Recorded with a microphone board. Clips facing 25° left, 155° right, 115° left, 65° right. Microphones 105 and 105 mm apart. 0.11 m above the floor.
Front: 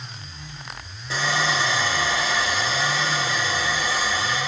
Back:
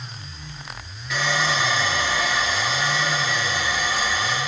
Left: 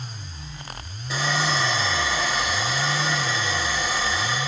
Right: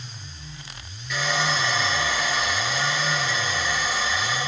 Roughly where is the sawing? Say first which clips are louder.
Even, left 1 dB; left.